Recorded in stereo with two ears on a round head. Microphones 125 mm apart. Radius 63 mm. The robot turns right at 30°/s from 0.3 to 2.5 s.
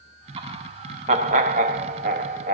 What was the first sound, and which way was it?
Laughter, 140° right.